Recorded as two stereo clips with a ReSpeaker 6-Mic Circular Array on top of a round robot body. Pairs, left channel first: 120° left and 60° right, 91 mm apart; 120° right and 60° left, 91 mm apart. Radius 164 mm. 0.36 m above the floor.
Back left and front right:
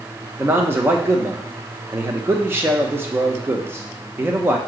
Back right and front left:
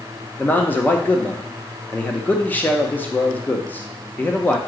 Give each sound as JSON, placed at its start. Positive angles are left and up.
{"t": 0.4, "sound": "a man speaking", "azimuth_deg": -80, "distance_m": 1.2}